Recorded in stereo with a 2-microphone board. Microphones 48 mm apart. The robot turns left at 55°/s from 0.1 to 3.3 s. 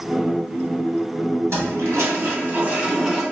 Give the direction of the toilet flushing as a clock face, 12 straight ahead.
3 o'clock.